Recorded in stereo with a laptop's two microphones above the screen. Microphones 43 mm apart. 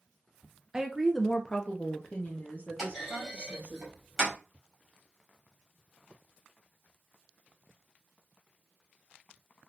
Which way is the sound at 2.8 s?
5° right (ahead or behind).